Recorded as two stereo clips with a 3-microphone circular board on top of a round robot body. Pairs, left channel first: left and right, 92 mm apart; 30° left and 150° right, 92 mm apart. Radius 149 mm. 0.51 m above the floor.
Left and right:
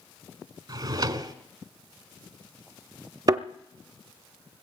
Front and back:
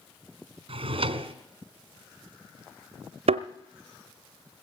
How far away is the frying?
I don't hear frying.